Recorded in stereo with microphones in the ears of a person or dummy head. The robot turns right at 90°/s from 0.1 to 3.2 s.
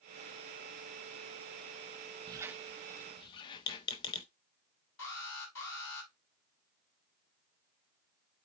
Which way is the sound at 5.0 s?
65° left (ahead or behind).